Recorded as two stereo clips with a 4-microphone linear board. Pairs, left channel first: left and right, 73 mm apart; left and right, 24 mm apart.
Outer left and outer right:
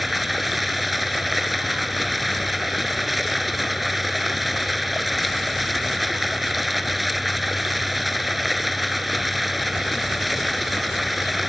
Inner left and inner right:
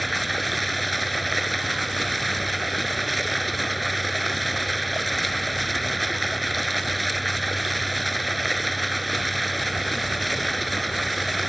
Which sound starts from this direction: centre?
Running water, at 0.0 s.